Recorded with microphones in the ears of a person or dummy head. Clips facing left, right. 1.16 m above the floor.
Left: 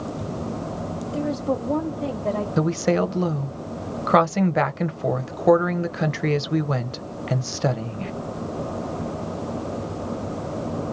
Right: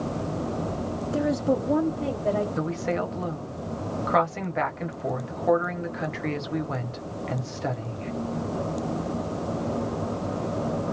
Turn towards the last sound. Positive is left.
turn(degrees=55)  # may be behind; listen again after turning